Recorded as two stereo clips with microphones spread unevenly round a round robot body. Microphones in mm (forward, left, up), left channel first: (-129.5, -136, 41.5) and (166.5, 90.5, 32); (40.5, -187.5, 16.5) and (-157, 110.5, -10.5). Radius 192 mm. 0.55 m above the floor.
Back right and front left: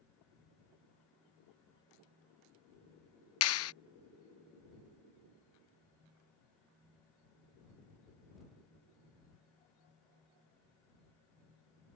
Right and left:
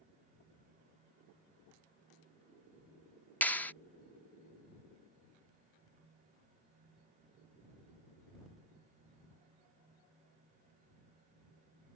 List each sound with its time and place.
3.4 s a clap: 145° right